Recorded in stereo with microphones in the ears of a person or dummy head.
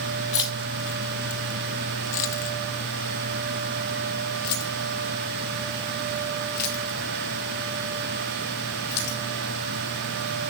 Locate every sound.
0.3 s keys jangling: 15° left (ahead or behind), 0.6 m; by 9.2 s 55° left (ahead or behind), 5 m